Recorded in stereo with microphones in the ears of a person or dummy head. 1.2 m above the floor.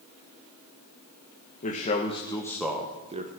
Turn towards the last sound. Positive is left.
turn(degrees=-35)  # may be behind; listen again after turning